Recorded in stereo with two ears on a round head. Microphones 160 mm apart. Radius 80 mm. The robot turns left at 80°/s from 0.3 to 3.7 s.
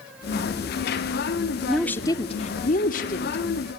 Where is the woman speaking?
175° right, 1.3 m; by 3.4 s 45° left, 1.3 m.